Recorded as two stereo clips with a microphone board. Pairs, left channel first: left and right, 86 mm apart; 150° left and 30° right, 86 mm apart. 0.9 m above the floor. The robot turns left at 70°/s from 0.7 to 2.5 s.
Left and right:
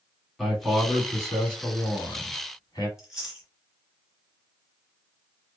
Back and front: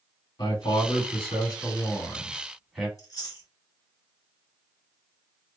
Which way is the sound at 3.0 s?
175° right.